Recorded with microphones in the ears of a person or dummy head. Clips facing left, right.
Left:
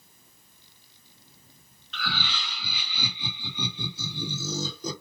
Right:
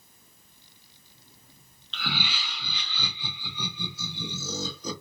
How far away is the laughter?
About 0.6 m.